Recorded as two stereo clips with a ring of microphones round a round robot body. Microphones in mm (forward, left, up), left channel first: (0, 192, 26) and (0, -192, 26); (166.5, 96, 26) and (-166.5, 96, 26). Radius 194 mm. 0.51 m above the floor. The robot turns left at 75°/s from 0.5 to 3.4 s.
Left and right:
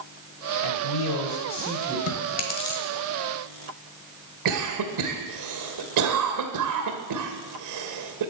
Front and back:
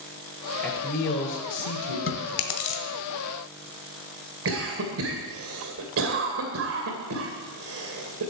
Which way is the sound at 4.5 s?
130° right.